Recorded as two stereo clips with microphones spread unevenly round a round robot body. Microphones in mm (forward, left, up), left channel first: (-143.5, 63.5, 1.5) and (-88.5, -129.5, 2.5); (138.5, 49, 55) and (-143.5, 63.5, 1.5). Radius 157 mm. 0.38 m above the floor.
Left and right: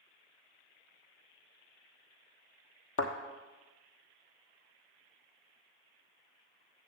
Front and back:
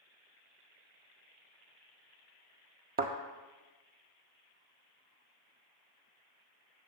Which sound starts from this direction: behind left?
A thud, at 3.0 s.